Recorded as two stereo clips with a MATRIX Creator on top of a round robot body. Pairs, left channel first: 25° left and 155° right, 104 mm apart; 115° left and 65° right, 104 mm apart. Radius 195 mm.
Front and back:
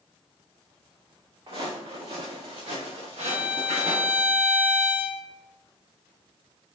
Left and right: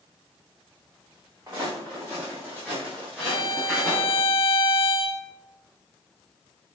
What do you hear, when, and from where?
1.5 s footsteps: 125° right, 3 m; by 4.2 s 155° right, 5 m
3.2 s a violin: 135° left, 1.2 m